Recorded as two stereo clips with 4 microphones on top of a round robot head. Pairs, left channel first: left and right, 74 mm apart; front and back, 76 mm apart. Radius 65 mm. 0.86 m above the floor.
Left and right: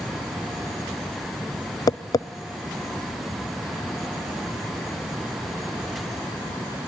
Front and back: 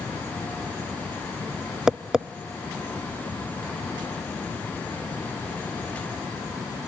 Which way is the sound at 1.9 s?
100° left.